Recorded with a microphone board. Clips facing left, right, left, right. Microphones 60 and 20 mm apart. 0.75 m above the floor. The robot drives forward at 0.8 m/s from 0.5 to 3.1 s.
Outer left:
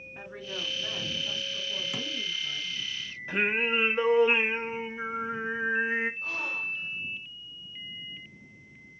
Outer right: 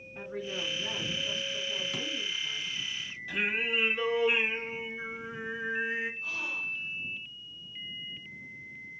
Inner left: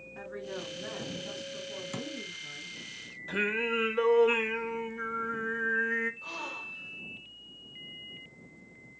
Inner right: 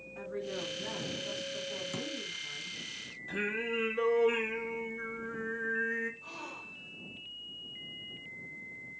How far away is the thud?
About 0.8 m.